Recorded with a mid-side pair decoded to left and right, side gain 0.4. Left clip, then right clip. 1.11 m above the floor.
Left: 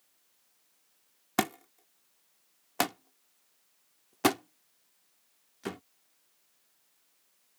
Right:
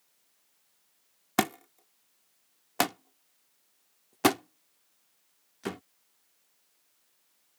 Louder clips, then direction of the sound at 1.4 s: Right 2 dB; 20° right.